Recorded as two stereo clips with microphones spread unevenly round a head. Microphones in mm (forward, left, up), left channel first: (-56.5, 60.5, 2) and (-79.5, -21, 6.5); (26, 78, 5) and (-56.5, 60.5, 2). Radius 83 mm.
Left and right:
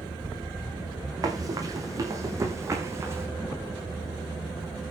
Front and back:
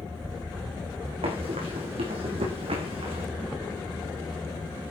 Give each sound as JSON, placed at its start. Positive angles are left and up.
{"t": 1.2, "sound": "running footsteps", "azimuth_deg": -145, "distance_m": 4.5}